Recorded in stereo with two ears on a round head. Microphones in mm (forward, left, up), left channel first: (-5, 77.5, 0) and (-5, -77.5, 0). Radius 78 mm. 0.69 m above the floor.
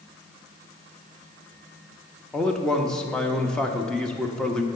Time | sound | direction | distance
2.3 | a man speaking | 5° left (ahead or behind) | 0.7 m